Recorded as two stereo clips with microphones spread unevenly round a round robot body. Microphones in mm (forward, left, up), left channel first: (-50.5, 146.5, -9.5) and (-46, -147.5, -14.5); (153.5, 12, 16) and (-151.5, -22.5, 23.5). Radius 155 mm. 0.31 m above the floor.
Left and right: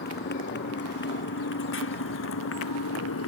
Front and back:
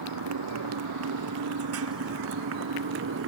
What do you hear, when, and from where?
0.0 s a motorcycle: 150° left; by 3.3 s 135° left